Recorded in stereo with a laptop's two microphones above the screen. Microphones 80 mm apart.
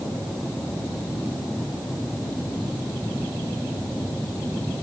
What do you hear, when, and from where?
Only background noise.